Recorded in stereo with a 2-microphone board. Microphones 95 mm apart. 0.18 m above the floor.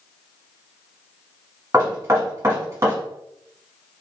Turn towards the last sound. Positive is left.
turn(degrees=-35)  # may be behind; listen again after turning